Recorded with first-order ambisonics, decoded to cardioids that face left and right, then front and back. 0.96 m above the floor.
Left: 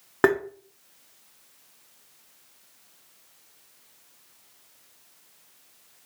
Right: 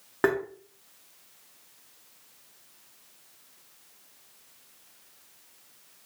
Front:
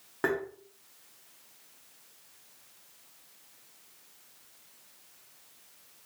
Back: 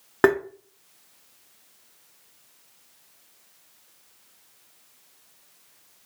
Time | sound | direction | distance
0.2 | tapping | 155° left | 0.5 m